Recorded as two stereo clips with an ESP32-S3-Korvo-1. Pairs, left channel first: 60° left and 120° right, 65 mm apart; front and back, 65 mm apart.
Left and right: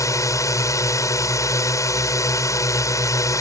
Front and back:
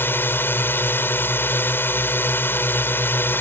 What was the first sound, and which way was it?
A drone, 50° left.